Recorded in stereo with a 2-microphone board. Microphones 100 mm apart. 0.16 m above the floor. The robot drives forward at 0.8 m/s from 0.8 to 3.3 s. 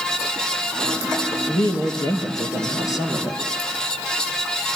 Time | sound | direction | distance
1.5 | a woman speaking | 45° left (ahead or behind) | 3.5 m